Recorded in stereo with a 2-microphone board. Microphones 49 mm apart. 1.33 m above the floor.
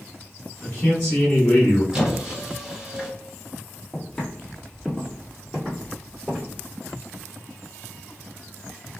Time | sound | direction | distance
0.6 | a man speaking | 15° left (ahead or behind) | 1.3 m
1.9 | a squeak | 15° right (ahead or behind) | 1.2 m
3.9 | footsteps | 15° left (ahead or behind) | 1.4 m